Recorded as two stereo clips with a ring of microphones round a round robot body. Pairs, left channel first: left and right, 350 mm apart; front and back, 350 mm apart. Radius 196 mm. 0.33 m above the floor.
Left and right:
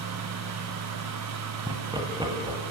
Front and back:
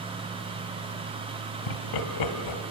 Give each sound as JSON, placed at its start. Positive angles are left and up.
{"t": 1.7, "sound": "laughter", "azimuth_deg": -10, "distance_m": 1.9}